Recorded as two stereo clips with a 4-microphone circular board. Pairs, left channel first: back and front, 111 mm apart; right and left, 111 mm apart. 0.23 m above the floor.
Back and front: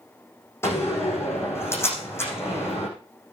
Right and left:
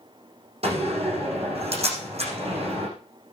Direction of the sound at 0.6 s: 110° left.